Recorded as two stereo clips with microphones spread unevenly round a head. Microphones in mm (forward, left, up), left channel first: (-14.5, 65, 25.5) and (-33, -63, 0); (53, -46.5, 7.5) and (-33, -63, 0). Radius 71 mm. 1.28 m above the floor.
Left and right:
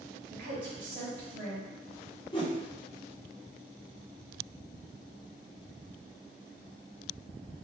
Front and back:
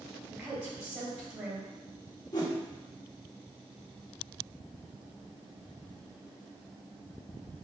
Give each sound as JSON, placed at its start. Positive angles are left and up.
{"t": 0.3, "sound": "a woman speaking", "azimuth_deg": -115, "distance_m": 1.8}
{"t": 2.3, "sound": "a whoosh", "azimuth_deg": 45, "distance_m": 1.1}